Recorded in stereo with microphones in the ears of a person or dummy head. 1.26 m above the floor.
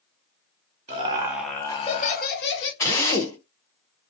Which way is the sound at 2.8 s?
15° left (ahead or behind).